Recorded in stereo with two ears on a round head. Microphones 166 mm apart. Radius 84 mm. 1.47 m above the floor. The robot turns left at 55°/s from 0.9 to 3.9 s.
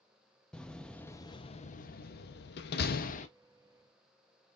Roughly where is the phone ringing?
No phone ringing in this recording.